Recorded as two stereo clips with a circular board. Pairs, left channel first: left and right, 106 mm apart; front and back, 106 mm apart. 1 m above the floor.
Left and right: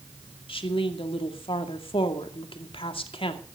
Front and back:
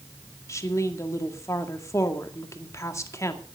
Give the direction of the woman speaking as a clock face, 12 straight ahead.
10 o'clock.